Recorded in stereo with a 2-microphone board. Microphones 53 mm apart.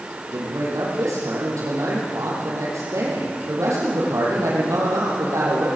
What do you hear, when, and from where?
0.3 s a man speaking: 70° right (ahead or behind), 4.5 m